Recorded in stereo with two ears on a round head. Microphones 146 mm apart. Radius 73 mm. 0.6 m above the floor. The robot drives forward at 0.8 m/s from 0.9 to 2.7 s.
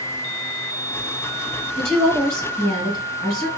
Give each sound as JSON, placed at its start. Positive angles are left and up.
{"t": 1.8, "sound": "a woman speaking", "side_deg": 5, "distance_m": 2.0}